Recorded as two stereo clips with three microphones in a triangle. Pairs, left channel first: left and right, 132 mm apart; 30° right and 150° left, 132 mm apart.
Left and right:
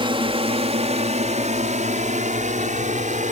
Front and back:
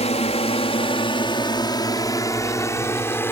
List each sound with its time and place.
0.0 s a drone: 50° right; by 3.3 s 100° right